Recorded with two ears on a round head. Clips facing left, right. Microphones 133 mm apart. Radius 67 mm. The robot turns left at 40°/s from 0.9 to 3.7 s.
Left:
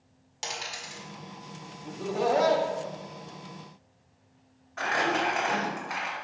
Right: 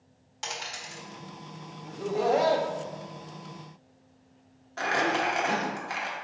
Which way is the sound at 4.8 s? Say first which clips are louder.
Even; 40° right (ahead or behind).